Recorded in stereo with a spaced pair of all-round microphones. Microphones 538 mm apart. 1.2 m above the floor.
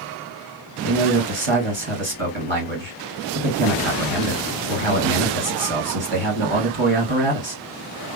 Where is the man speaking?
55° right (ahead or behind), 1.9 m.